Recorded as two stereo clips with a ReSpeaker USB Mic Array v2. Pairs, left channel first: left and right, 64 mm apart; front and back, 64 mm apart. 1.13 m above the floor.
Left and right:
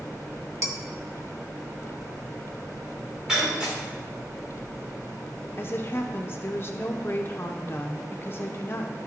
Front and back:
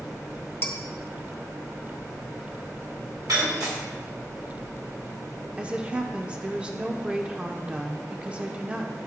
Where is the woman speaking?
115° left, 0.5 m.